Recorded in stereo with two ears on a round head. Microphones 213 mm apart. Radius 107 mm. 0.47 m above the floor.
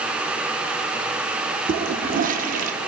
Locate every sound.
1.7 s a toilet flushing: 40° right (ahead or behind), 0.5 m